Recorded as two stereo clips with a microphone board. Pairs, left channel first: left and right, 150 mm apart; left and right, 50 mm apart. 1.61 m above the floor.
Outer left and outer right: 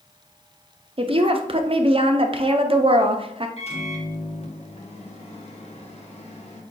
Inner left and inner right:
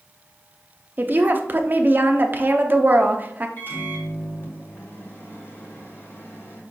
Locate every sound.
1.0 s a woman speaking: 40° right (ahead or behind), 0.6 m
3.6 s a microwave: 45° left (ahead or behind), 1.1 m